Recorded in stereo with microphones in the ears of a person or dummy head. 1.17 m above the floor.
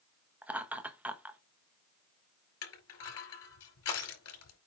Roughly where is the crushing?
Left.